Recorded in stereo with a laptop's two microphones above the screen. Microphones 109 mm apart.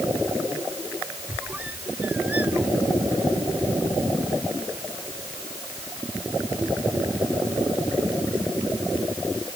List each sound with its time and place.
1.3 s a squeak: 15° right (ahead or behind)